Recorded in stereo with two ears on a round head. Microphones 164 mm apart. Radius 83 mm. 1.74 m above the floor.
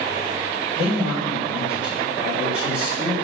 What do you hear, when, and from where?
0.8 s a man speaking: 5° right (ahead or behind), 4 m